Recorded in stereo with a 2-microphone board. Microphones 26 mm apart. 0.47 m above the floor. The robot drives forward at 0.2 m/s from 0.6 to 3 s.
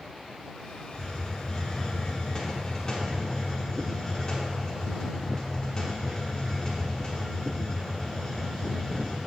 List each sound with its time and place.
0.9 s a hiss: 20° left (ahead or behind), 1.0 m